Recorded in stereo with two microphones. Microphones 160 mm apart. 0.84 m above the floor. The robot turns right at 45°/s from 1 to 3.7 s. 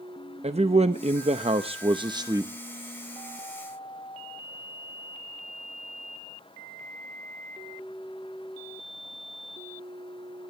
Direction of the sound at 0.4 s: 95° right.